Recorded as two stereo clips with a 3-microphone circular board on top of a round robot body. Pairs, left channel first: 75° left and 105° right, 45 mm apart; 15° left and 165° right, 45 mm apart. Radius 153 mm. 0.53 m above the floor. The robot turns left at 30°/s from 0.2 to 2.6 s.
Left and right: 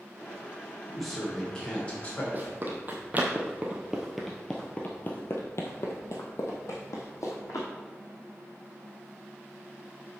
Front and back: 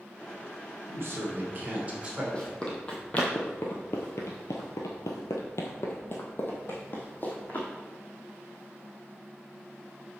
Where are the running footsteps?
55° right, 1.6 m; by 7.7 s 70° left, 2 m.